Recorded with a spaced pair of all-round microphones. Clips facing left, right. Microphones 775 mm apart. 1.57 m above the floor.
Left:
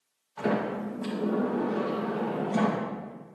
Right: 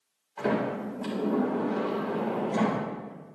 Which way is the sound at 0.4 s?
45° left (ahead or behind).